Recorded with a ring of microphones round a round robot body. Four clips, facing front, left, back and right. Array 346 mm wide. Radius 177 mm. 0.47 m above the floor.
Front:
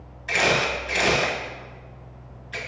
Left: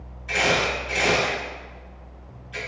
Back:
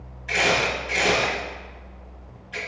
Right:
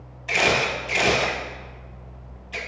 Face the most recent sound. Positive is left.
turn(degrees=-60)